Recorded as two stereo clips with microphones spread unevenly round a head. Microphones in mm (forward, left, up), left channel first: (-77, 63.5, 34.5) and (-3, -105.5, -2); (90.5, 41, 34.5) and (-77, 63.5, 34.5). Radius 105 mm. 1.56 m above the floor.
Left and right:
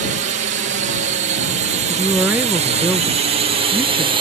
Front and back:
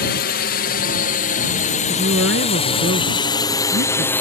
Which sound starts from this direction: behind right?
A woman speaking, at 1.9 s.